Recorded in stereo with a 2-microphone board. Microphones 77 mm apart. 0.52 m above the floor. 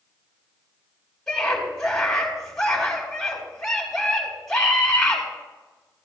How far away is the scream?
About 4 m.